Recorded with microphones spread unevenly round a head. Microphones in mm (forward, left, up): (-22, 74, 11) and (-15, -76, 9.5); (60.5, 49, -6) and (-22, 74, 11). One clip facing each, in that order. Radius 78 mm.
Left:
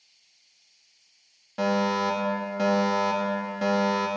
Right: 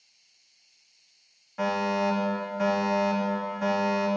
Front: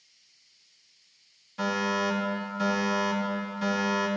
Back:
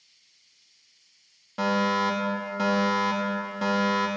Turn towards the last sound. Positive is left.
turn(degrees=135)